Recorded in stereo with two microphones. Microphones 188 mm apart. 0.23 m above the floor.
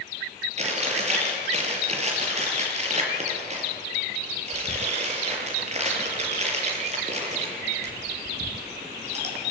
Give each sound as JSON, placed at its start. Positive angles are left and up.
{"t": 0.6, "sound": "chewing", "side_deg": -35, "distance_m": 5.0}